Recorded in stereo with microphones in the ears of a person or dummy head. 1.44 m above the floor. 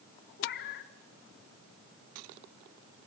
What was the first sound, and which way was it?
A cat meowing, 70° left (ahead or behind).